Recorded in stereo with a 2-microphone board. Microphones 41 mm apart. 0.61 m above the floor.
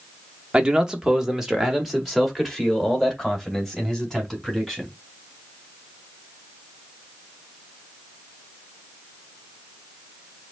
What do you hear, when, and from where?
0.5 s a man speaking: 20° right (ahead or behind), 1.0 m; by 4.9 s 10° left (ahead or behind), 3.5 m